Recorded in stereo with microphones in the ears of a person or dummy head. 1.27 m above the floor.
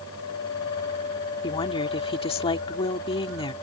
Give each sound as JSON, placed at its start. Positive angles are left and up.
{"t": 1.4, "sound": "a woman speaking", "side_deg": 30}